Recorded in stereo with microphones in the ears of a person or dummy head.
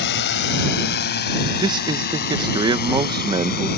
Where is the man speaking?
20° right (ahead or behind).